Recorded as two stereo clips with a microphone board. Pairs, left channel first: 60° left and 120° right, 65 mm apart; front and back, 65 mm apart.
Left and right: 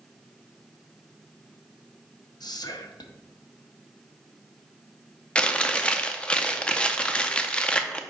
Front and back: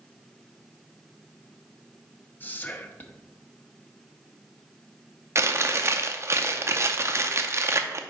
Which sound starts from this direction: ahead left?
Whispering, at 2.4 s.